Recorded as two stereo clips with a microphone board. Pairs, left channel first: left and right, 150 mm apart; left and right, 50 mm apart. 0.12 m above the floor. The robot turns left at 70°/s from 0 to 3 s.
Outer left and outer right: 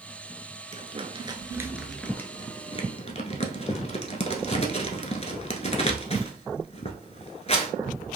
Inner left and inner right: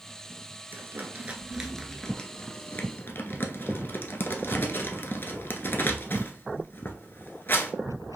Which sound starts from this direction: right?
Crumpling, at 0.7 s.